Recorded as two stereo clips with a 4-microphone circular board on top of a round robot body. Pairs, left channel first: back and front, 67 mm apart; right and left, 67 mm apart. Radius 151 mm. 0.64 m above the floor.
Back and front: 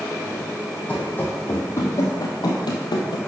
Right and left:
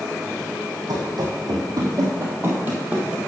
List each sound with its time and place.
0.9 s running footsteps: 110° left, 2.5 m; by 3.2 s 170° left, 1.6 m